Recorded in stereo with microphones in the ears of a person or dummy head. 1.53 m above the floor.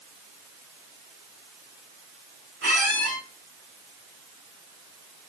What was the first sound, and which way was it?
A squeak, 50° right (ahead or behind).